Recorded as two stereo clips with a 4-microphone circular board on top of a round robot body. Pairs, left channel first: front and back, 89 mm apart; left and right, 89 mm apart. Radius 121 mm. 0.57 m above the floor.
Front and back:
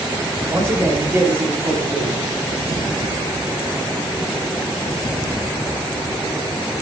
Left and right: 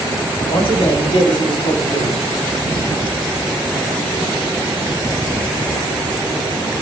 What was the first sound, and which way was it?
A man speaking, 110° left.